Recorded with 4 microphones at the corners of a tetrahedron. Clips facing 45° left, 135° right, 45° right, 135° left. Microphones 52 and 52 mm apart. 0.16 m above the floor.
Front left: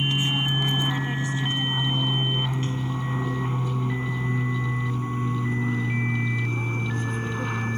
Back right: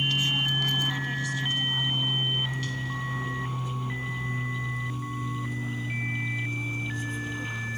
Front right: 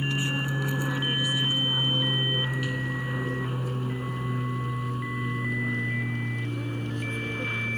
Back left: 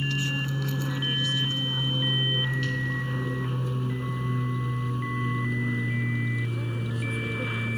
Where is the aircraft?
Straight ahead; by 7.8 s 50° left.